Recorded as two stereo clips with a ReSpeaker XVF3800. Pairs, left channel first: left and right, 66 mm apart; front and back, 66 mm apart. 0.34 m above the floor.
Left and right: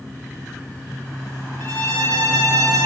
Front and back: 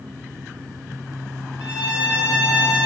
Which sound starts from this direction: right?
A violin, at 1.6 s.